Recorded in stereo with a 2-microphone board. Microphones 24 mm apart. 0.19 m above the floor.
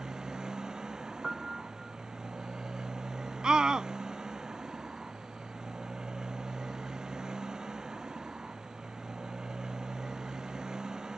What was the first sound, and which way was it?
A motorcycle, 30° right (ahead or behind).